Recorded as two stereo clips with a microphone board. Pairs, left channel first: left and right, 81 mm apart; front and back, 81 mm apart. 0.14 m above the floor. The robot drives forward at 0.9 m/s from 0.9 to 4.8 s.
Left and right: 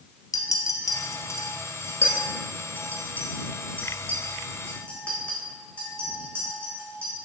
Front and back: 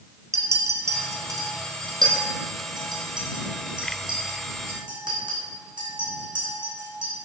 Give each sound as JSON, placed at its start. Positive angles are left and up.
{"t": 0.3, "sound": "a clink", "azimuth_deg": 130, "distance_m": 1.8}